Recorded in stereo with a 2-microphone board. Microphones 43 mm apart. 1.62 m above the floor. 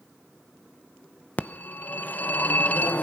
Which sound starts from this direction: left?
A phone ringing, at 1.4 s.